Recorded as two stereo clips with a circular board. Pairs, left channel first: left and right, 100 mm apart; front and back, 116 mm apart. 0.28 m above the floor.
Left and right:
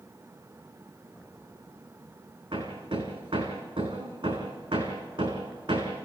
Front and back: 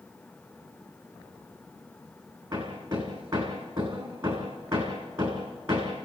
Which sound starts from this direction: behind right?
Hammering, at 2.5 s.